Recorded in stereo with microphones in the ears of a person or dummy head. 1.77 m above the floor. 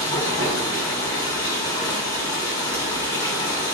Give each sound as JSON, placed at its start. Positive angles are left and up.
{"t": 0.0, "sound": "running water", "side_deg": 25, "distance_m": 3.5}